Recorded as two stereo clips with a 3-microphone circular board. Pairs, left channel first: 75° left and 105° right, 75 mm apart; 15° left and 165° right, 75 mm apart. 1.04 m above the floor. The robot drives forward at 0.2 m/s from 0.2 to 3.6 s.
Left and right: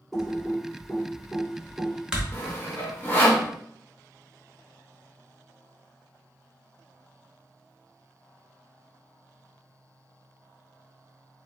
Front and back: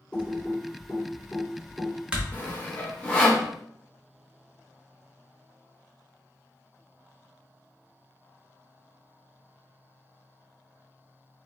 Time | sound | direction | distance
0.1 | typing on a keyboard | 20° right | 0.7 m
2.3 | sawing | 45° left | 0.7 m